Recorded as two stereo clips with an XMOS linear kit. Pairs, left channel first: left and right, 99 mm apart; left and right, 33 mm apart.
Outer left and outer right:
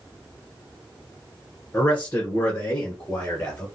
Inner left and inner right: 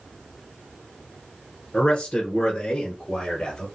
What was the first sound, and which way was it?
A man speaking, 20° left (ahead or behind).